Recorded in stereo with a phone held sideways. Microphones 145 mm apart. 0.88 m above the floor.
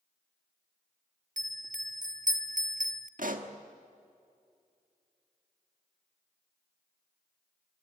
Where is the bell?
65° right (ahead or behind), 0.7 m.